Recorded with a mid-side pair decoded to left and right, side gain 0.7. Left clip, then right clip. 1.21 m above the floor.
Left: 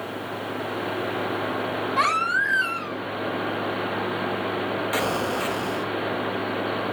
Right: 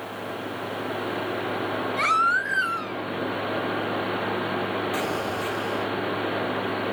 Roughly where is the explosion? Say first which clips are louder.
Left 3 dB; left.